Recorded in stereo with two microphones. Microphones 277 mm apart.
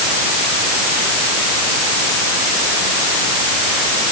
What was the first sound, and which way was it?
Only background noise.